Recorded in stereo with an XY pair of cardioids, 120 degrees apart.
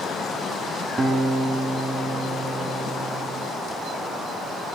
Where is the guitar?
25° right, 5 m.